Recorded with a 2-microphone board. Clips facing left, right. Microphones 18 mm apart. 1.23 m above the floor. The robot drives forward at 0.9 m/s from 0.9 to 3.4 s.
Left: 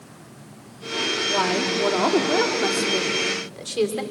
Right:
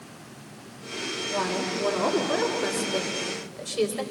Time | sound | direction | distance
1.3 | a woman speaking | 85° left | 2 m